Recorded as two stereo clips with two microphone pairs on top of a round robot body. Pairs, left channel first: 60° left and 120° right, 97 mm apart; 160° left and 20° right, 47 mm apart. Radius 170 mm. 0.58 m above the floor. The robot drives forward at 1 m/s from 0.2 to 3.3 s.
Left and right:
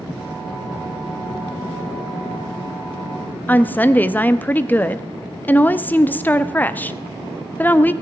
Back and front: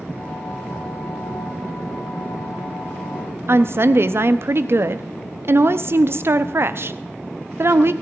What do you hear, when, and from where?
3.5 s a woman speaking: 10° right, 0.8 m